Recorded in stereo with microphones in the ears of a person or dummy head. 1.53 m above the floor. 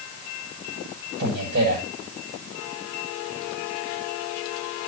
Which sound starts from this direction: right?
A man speaking, at 1.2 s.